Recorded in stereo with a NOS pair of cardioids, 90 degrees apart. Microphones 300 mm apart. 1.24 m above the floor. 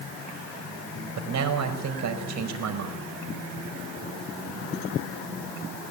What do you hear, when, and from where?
1.2 s a man speaking: 60° right, 5 m